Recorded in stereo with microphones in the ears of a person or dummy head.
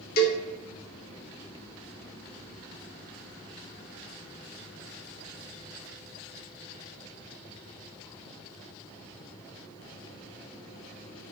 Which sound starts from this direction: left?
A cowbell, at 0.2 s.